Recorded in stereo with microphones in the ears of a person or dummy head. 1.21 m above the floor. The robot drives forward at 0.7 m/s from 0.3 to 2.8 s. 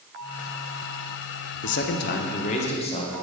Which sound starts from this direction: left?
A man speaking, at 1.6 s.